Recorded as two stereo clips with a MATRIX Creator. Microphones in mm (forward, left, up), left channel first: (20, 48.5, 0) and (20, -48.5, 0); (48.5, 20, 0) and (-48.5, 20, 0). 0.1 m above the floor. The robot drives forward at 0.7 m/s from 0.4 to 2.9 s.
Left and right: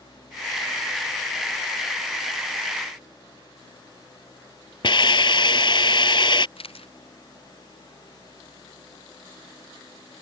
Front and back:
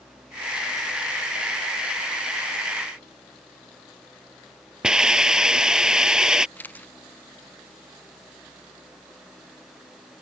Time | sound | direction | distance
4.8 | a hiss | 100° left | ?
6.6 | a camera shutter | 70° left | ?